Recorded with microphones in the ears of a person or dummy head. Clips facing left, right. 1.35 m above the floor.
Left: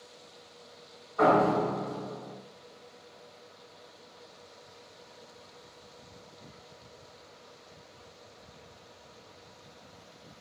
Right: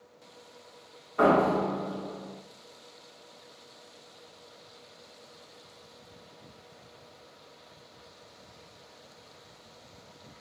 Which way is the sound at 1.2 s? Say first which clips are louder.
Right 1 dB; 30° right (ahead or behind).